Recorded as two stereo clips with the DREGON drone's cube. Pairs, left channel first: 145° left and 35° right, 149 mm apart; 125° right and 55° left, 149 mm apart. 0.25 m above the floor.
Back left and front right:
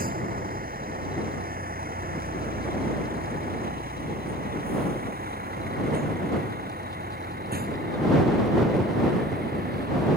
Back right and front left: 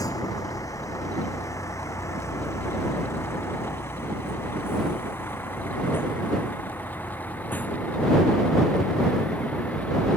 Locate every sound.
0.0 s a vehicle: 55° right; by 10.2 s 45° right